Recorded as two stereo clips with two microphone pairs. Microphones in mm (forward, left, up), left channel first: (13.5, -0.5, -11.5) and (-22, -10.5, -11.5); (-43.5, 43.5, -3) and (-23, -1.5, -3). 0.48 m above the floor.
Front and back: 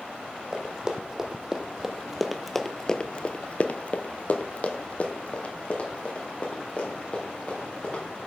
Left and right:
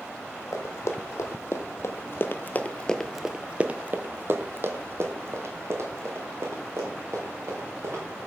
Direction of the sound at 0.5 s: 125° left.